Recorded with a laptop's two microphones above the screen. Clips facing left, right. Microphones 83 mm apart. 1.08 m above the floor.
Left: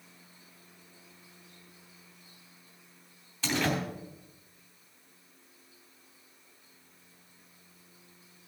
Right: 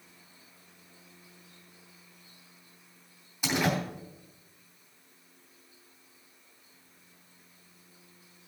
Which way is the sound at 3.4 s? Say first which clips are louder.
Right 1 dB; 15° right (ahead or behind).